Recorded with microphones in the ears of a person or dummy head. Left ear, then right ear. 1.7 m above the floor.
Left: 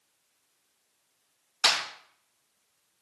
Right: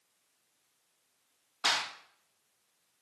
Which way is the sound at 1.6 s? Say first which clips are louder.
Left 5 dB; 70° left (ahead or behind).